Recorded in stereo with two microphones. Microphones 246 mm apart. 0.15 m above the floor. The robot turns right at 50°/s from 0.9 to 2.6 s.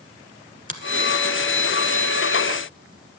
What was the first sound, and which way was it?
A finger snap, 35° right (ahead or behind).